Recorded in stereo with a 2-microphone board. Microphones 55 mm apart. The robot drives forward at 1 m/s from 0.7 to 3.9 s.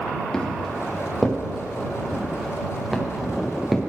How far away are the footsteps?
About 4 m.